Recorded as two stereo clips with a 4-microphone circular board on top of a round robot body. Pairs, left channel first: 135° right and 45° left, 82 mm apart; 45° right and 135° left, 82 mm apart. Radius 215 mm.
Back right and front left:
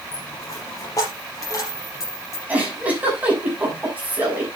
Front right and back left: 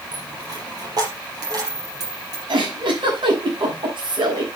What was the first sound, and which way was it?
A dropped coin, 175° left.